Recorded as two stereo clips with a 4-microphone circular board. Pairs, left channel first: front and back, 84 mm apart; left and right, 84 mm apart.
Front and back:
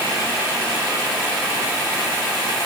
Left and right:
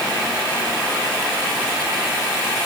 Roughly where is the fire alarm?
I don't hear a fire alarm.